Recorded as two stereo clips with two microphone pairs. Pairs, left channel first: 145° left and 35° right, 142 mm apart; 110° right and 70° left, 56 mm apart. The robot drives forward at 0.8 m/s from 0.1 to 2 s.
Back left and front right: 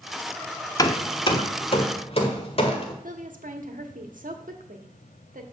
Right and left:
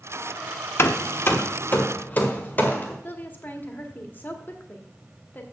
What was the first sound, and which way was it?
Hammering, 150° right.